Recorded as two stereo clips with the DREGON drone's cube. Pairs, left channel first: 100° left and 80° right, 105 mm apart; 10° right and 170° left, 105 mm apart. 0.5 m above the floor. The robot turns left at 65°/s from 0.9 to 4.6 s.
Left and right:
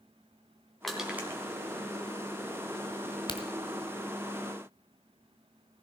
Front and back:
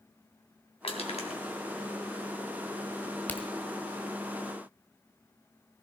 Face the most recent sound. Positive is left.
turn(degrees=-20)